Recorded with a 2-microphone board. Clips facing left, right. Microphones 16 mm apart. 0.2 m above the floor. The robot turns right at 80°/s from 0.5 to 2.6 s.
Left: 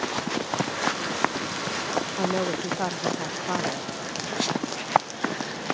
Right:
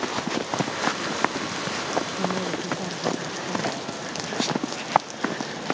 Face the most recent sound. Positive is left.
turn(degrees=105)